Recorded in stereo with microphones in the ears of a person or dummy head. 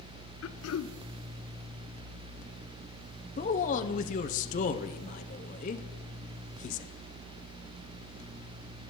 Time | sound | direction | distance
0.4 | throat clearing | 90° left | 0.5 m
3.4 | a man speaking | 40° left (ahead or behind) | 0.7 m